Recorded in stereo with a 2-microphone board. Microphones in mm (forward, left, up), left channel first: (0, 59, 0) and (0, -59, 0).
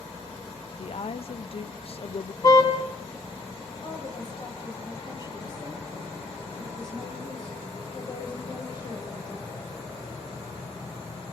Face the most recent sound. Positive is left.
turn(degrees=40)  # may be behind; listen again after turning